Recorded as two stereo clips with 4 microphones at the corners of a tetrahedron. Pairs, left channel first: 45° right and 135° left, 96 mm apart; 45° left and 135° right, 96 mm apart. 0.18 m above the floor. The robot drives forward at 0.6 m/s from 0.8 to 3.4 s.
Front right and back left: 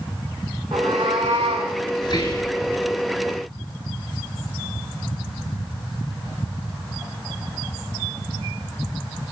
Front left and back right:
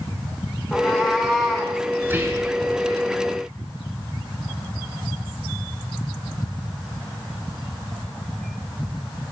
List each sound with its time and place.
0.7 s a cat meowing: 130° left, 4 m; by 1.8 s 135° left, 4.5 m
2.0 s whispering: 70° right, 3 m; by 2.5 s 80° right, 3 m